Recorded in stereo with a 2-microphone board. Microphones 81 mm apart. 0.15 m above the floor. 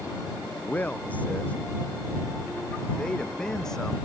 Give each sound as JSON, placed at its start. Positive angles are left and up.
{"t": 0.7, "sound": "a man speaking", "side_deg": 20}